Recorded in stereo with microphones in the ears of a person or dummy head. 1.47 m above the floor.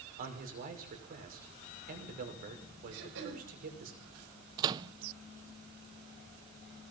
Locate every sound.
0.2 s a man speaking: 50° right (ahead or behind), 6 m
2.9 s throat clearing: 65° right (ahead or behind), 6 m
4.6 s a microwave: 20° right (ahead or behind), 0.6 m